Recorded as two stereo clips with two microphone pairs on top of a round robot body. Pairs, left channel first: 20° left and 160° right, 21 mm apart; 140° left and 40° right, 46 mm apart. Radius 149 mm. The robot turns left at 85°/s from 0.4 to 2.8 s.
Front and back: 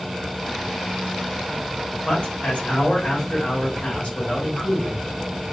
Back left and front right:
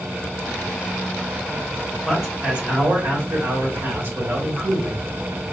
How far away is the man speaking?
About 2.5 m.